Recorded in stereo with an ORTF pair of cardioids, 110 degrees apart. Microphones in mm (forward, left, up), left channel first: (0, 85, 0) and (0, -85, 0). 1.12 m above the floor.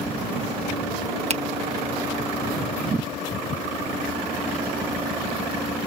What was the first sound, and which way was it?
A finger snap, 40° right.